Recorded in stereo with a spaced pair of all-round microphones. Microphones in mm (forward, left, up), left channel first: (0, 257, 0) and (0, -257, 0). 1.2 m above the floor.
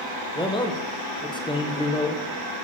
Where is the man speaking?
10° left (ahead or behind), 0.5 m.